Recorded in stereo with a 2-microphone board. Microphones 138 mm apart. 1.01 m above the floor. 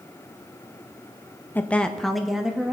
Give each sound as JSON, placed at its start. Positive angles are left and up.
{"t": 1.6, "sound": "a woman speaking", "side_deg": 15, "distance_m": 0.6}